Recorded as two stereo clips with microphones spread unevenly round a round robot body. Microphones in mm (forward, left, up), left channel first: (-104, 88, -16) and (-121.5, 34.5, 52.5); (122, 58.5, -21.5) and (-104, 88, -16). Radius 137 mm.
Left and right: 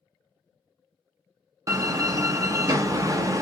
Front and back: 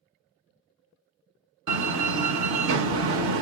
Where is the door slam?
175° left, 0.9 m.